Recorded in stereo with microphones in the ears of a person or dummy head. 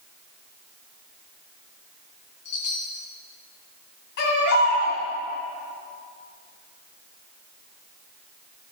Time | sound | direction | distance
2.5 | a chime | 50° left (ahead or behind) | 1.6 m
4.2 | a baby crying | 60° left (ahead or behind) | 3 m